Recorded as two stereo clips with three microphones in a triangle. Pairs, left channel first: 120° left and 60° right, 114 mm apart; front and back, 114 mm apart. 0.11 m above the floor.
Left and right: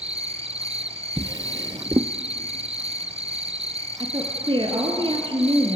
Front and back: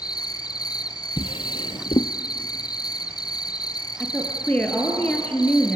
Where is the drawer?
20° right, 0.8 m.